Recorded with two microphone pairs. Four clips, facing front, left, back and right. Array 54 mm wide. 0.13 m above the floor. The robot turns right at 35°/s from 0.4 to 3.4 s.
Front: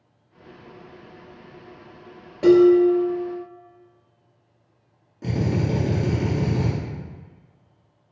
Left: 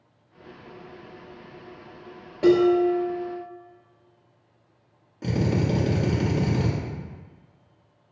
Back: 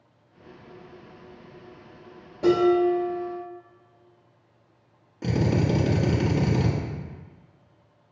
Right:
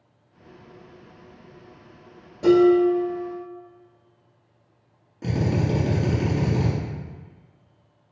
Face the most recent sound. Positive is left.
turn(degrees=170)